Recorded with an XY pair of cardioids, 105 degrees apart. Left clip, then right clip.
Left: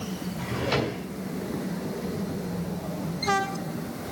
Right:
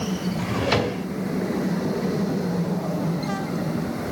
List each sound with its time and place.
0.4 s a drawer: 45° right, 2 m